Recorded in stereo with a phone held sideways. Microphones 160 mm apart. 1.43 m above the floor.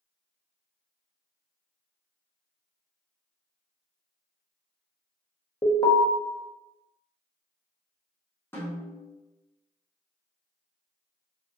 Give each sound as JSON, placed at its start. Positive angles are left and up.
{"t": 5.6, "sound": "an alarm", "side_deg": 25, "distance_m": 0.5}
{"t": 8.5, "sound": "a snare drum", "side_deg": 15, "distance_m": 1.2}